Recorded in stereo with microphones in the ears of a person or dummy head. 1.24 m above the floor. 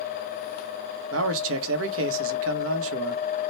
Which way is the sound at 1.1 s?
75° right (ahead or behind).